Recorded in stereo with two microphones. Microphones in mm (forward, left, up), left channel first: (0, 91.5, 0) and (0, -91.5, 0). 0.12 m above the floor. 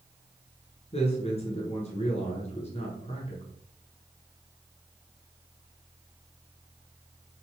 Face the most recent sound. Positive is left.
turn(degrees=35)  # may be behind; listen again after turning